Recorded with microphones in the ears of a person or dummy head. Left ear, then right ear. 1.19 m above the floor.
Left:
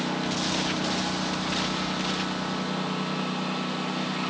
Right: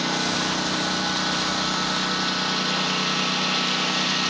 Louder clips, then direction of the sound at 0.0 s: Right 5 dB; 70° right (ahead or behind).